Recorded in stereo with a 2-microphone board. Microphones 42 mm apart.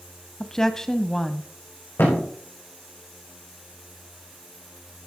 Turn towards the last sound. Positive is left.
turn(degrees=60)  # may be behind; listen again after turning